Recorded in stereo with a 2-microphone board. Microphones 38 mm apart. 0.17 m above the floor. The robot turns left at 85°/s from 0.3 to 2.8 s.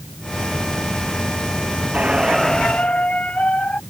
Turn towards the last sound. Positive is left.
turn(degrees=145)